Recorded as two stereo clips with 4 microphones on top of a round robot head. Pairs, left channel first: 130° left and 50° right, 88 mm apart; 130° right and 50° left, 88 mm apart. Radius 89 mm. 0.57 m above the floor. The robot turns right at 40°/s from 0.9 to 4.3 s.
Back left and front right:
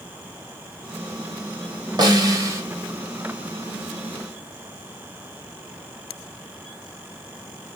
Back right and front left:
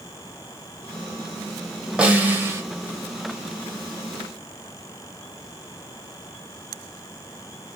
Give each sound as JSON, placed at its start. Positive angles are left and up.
{"t": 2.0, "sound": "a snare drum", "azimuth_deg": -25, "distance_m": 0.9}